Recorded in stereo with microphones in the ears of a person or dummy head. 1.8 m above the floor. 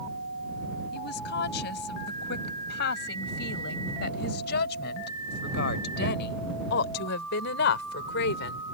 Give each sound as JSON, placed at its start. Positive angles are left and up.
{"t": 0.9, "sound": "a woman speaking", "side_deg": 60}